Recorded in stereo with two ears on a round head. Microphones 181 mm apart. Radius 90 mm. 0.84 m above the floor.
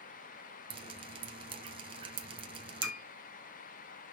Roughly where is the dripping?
Right.